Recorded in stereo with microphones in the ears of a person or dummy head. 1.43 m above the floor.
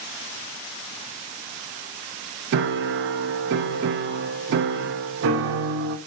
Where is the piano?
65° right (ahead or behind), 0.6 m.